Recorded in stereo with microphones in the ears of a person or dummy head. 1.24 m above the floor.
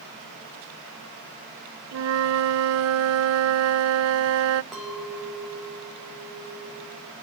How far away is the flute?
About 0.6 m.